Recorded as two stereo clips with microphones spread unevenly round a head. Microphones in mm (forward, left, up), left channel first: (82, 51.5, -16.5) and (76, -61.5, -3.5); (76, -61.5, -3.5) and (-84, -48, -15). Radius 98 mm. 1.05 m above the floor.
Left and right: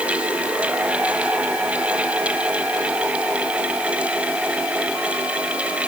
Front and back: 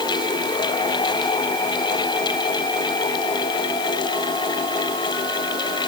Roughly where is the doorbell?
No doorbell in this recording.